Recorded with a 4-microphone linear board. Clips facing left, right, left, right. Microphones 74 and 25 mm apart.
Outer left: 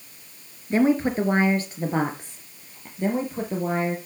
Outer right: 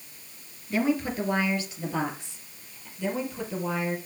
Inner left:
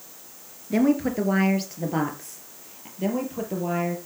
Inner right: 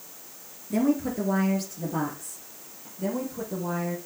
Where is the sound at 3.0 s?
45° left (ahead or behind), 4 m.